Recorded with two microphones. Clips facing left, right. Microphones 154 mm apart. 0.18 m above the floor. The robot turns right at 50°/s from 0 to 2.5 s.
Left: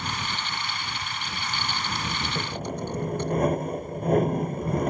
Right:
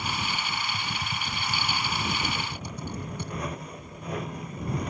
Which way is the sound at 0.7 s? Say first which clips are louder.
Right 1 dB; 30° right (ahead or behind).